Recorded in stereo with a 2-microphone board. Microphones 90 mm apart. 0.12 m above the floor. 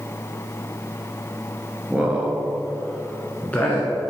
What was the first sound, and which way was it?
A man speaking, 15° right (ahead or behind).